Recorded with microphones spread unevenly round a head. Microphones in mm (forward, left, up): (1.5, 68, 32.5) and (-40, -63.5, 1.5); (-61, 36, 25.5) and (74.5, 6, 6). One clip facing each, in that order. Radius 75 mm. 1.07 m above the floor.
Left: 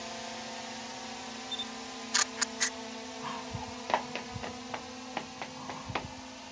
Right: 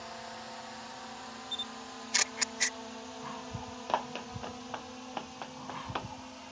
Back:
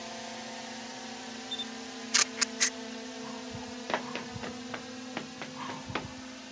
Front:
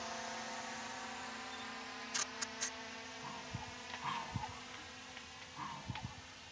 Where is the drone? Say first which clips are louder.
Left 3 dB, back 4 dB; 130° left; by 6.5 s 160° left.